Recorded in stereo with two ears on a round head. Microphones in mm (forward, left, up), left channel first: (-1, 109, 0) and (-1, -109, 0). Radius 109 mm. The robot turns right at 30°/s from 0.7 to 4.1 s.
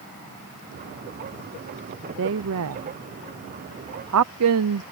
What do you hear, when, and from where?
2.2 s a woman speaking: 55° right (ahead or behind); by 4.8 s 65° right (ahead or behind)